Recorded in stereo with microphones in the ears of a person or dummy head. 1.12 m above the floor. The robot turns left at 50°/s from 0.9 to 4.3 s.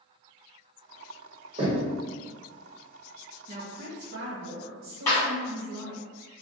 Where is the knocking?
30° right (ahead or behind), 1.1 m; by 1.9 s 10° right (ahead or behind), 1.1 m.